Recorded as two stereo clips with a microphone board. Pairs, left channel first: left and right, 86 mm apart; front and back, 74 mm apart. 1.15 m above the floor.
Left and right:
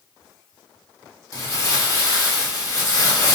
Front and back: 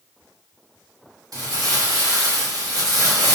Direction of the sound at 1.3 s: 145° left.